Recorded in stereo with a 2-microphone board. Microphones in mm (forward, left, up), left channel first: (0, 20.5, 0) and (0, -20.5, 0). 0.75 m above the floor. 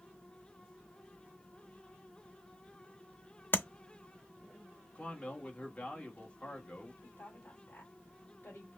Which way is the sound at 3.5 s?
55° left (ahead or behind).